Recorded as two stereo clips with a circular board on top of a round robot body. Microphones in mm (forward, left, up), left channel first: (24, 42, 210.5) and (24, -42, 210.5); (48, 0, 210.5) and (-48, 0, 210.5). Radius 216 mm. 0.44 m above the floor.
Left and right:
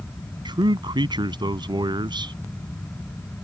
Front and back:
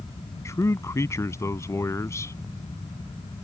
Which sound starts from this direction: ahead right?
A man speaking, at 0.5 s.